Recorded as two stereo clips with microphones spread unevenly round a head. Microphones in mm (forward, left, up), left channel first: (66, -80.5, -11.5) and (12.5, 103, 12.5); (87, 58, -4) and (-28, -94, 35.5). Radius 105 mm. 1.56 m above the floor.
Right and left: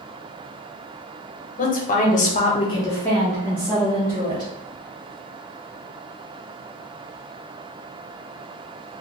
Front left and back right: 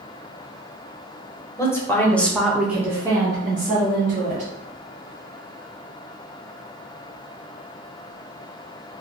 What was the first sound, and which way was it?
A woman speaking, 30° right.